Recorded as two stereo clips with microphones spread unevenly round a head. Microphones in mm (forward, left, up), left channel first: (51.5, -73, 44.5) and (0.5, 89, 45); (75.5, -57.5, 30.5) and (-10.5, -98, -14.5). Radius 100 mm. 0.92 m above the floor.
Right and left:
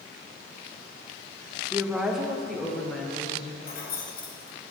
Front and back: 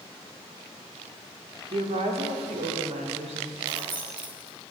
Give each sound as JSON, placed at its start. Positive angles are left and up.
{"t": 1.7, "sound": "a woman speaking", "azimuth_deg": -170, "distance_m": 1.6}
{"t": 3.6, "sound": "keys jangling", "azimuth_deg": -115, "distance_m": 3.0}